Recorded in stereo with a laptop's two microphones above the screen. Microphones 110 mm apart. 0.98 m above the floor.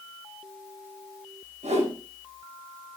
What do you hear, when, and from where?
1.6 s a whoosh: 85° right, 5.5 m